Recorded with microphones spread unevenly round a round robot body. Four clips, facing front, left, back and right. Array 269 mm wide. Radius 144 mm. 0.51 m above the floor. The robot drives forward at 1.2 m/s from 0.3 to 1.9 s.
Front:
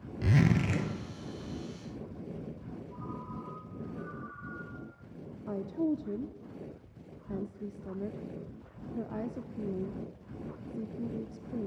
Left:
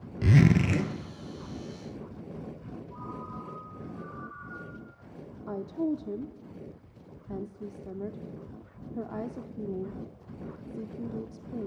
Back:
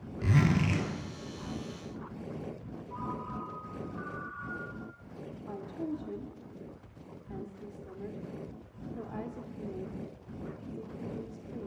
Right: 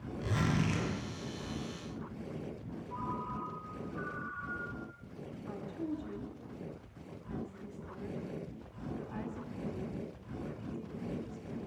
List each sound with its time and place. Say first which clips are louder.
0.2 s a zipper: left 10 dB, even; 85° left, 2 m; by 0.9 s 105° left, 2.5 m
2.9 s a ringtone: right 4 dB, back 6 dB; 130° right, 4 m
5.5 s a woman speaking: left 9 dB, front 6 dB; 65° left, 0.8 m